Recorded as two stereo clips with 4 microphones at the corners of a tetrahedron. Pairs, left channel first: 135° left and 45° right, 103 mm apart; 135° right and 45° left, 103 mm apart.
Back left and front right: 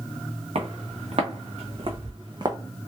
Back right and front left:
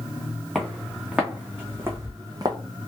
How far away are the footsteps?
About 1.6 m.